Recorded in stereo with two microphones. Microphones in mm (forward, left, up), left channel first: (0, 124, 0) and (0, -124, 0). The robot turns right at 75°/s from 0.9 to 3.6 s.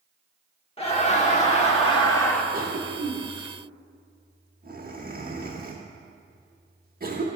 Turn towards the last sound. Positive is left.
turn(degrees=-40)  # may be behind; listen again after turning